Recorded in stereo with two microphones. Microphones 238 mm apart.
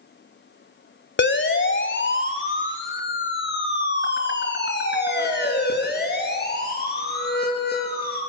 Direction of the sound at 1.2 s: 50° left (ahead or behind).